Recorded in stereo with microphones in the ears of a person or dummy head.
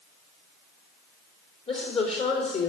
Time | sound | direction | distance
1.7 | a woman speaking | 35° left (ahead or behind) | 3 m